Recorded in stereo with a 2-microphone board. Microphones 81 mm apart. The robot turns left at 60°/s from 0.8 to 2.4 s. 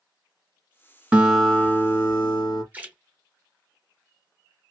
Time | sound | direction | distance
1.1 | a guitar | 165° right | 0.8 m
2.7 | a splash | 20° right (ahead or behind) | 0.8 m